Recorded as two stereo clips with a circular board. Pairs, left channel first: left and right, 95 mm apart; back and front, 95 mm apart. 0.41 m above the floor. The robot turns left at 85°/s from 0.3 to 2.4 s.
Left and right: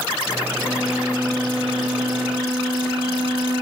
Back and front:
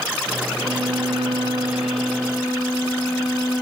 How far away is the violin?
About 9 m.